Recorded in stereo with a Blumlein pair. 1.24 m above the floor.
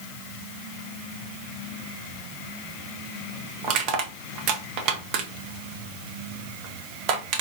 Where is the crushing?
40° right, 0.8 m.